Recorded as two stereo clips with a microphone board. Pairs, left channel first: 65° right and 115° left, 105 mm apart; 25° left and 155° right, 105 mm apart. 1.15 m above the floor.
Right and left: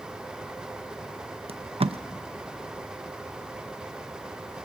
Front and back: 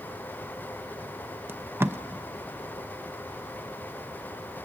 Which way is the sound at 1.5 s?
135° left.